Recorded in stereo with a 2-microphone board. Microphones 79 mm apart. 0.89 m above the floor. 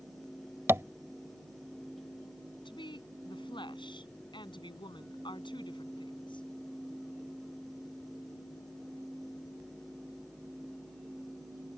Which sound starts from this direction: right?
Tapping, at 0.7 s.